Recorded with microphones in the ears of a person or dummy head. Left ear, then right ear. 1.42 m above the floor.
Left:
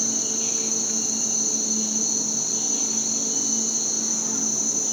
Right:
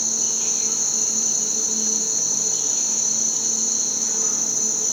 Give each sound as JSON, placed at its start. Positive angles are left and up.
{"t": 0.0, "sound": "an insect", "side_deg": -35, "distance_m": 2.5}